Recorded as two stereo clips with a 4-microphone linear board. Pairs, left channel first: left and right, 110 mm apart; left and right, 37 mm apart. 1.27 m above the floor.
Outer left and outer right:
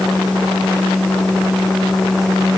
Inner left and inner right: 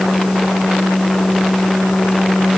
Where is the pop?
No pop in this recording.